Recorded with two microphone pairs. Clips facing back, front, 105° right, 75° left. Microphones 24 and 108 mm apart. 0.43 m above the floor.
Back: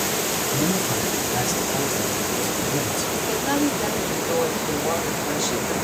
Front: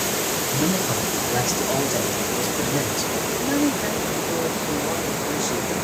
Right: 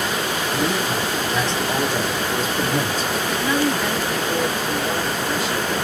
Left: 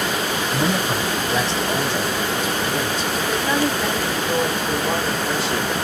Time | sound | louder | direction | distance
0.5 | a man speaking | front 1 dB, left 1 dB | 65° left | 1.6 m
3.3 | a woman speaking | even, even | 130° left | 3 m